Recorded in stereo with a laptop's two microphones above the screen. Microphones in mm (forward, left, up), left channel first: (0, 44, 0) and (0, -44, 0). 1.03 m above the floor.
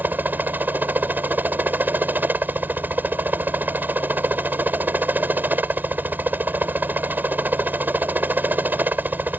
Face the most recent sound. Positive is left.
turn(degrees=-20)  # may be behind; listen again after turning